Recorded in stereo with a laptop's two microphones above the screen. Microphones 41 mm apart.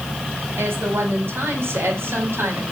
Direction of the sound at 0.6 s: 70° right (ahead or behind).